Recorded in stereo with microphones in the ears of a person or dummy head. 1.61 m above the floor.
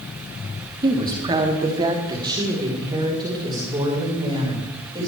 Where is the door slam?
I don't hear a door slam.